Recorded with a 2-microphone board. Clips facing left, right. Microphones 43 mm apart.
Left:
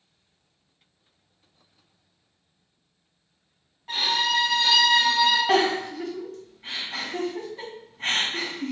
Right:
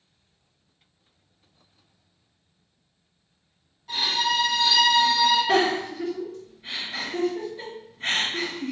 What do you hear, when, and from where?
3.9 s a violin: 35° left (ahead or behind), 1.0 m
5.5 s a giggle: 65° left (ahead or behind), 1.9 m